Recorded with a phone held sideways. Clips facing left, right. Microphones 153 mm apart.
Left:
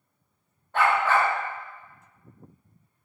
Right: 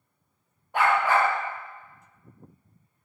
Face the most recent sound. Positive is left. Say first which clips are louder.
# even
turn(degrees=-15)  # may be behind; listen again after turning